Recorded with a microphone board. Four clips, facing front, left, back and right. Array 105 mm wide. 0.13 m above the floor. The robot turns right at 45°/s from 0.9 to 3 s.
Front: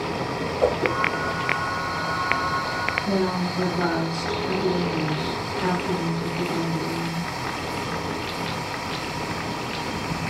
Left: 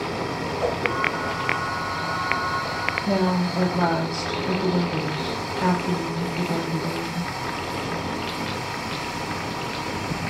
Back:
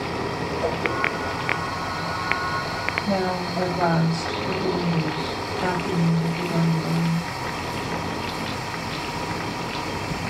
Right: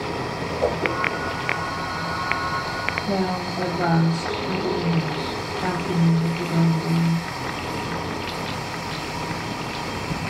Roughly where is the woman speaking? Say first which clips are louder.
Left 3 dB, back 1 dB; left.